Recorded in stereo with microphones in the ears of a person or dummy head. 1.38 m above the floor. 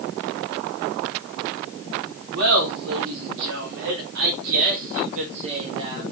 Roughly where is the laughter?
Right.